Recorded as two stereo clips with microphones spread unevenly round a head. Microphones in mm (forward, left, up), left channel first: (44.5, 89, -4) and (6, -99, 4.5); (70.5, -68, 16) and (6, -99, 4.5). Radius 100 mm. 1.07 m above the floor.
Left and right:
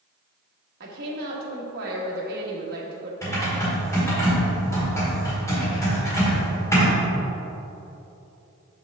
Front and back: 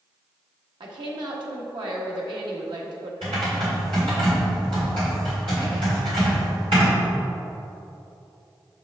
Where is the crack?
I don't hear a crack.